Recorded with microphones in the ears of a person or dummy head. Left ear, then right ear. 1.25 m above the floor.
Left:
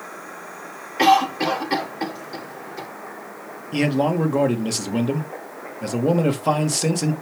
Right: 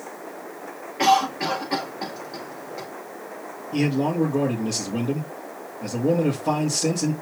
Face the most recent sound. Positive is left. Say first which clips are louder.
# left 3 dB
turn(degrees=60)  # may be behind; listen again after turning